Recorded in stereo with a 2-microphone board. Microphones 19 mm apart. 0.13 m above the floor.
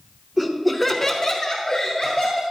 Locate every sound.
0.4 s laughter: 10° right (ahead or behind), 1.2 m; by 2.4 s 35° left (ahead or behind), 2 m